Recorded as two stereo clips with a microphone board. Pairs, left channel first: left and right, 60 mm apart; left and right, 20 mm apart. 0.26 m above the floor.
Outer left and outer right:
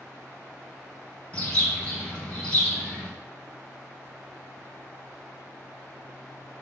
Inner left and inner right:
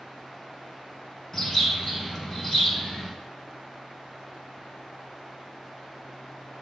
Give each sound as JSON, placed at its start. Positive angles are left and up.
{"t": 1.3, "sound": "a bird", "side_deg": 20, "distance_m": 3.0}